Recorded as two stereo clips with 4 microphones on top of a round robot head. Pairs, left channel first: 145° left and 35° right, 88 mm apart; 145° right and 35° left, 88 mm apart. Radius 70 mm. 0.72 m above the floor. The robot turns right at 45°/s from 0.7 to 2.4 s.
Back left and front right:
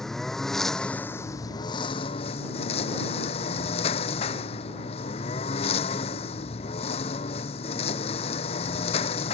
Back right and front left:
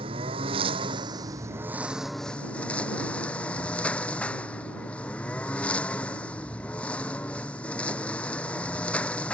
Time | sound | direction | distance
0.0 | a lawn mower | 60° left | ?